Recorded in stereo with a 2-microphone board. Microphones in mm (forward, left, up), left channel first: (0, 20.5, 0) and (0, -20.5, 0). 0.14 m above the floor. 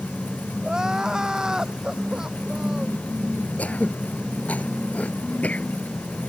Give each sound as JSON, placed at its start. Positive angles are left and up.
{"t": 0.6, "sound": "crying", "side_deg": -15}
{"t": 3.6, "sound": "throat clearing", "side_deg": 40}